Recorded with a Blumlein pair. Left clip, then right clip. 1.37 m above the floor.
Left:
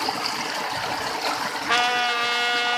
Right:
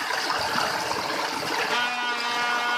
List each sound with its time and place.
1.7 s a trumpet: 30° left, 2.0 m